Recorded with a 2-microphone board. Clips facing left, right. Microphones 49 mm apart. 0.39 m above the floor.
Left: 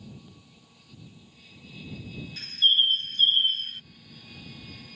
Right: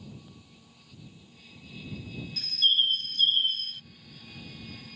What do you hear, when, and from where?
2.4 s a bird: 35° left (ahead or behind)